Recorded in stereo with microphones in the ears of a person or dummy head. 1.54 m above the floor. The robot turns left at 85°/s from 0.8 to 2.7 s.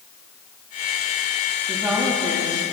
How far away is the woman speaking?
About 2 m.